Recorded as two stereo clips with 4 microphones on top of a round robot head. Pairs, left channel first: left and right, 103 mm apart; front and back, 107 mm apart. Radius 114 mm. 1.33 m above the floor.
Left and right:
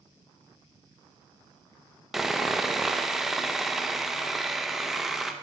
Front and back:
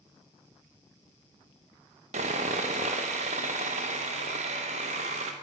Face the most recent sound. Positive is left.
turn(degrees=180)